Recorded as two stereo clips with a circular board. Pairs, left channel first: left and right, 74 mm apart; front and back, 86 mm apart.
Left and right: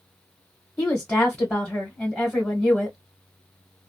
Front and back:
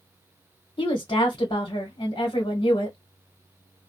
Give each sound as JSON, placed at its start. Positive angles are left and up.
{"t": 0.8, "sound": "a woman speaking", "azimuth_deg": 20, "distance_m": 1.1}